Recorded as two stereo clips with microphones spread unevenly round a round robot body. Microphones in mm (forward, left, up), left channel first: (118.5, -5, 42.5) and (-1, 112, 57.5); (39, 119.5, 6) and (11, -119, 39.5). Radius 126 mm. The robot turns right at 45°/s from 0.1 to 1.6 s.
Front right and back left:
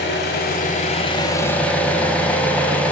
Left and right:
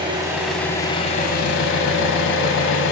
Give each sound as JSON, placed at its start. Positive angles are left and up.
{"t": 0.0, "sound": "an engine running", "azimuth_deg": -30, "distance_m": 0.8}